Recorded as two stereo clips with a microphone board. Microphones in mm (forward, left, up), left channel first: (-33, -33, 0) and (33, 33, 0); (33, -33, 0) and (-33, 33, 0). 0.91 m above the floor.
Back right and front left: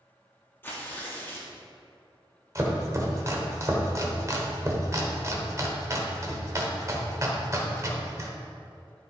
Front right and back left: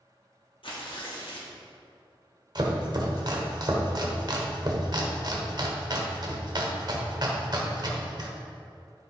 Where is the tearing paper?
70° right, 1.4 m.